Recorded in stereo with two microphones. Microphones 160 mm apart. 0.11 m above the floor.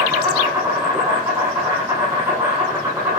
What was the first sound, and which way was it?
An insect, 15° right (ahead or behind).